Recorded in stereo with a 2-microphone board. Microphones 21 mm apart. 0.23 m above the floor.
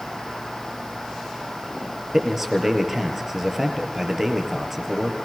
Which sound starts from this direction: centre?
A man speaking, at 2.1 s.